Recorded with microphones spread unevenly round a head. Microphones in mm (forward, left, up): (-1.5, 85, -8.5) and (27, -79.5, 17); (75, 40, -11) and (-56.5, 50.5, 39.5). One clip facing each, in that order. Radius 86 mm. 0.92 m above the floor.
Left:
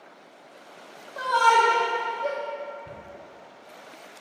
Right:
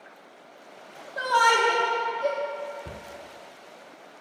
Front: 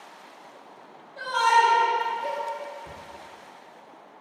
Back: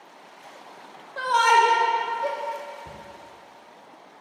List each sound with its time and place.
1.2 s a shout: 155° right, 0.5 m
2.9 s a cupboard door: 90° right, 0.5 m